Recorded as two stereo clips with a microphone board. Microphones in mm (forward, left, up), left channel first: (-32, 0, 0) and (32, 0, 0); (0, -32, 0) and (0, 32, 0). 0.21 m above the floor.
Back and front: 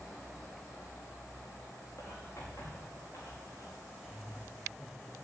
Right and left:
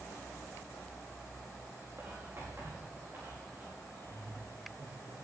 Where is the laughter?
90° left, 7 m.